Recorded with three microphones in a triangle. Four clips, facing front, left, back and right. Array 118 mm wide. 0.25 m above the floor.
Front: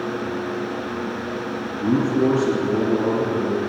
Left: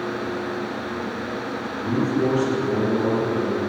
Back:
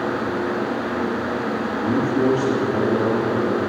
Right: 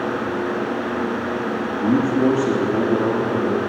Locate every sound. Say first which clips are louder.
1.8 s a man speaking: right 4 dB, front 1 dB; 30° right, 4 m; by 3.6 s 50° right, 5 m